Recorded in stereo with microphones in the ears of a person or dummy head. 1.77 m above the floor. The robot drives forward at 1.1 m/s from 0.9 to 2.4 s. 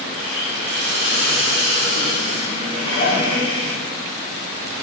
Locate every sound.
0.2 s a hiss: 75° right (ahead or behind), 1.9 m; by 3.7 s 45° right (ahead or behind), 2.5 m
2.7 s dishes clattering: 50° left (ahead or behind), 2 m